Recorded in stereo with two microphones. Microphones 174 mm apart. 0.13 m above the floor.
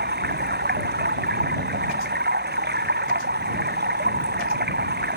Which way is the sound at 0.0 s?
70° right (ahead or behind).